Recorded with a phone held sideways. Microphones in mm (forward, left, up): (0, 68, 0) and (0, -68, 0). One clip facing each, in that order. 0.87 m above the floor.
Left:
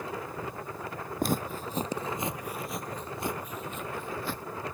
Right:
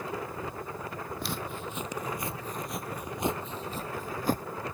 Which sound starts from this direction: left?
Footsteps, at 1.2 s.